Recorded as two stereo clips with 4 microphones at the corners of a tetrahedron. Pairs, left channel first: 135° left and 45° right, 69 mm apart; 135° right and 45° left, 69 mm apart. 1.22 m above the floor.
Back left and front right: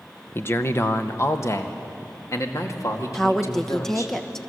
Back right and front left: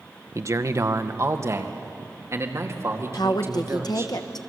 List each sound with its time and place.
0.3 s a man speaking: 80° left, 1.0 m; by 4.1 s 95° left, 3.5 m
3.1 s a woman speaking: 145° right, 1.2 m